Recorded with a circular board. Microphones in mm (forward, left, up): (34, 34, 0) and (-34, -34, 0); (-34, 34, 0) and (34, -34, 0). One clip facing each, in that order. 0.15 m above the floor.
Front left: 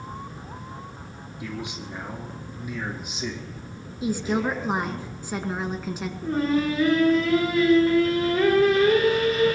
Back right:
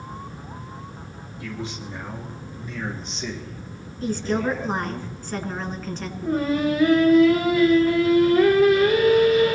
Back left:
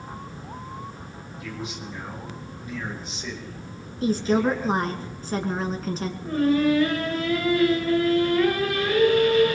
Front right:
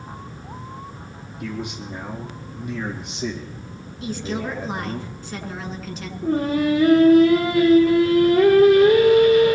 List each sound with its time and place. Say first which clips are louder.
1.4 s a man speaking: back right 1 dB, front right 5 dB; 25° right, 5.5 m; by 5.0 s 45° right, 5 m
4.0 s a woman speaking: back right 1 dB, back left 6 dB; 120° left, 1.7 m
6.2 s singing: back right 1 dB, front right 1 dB; 50° right, 6 m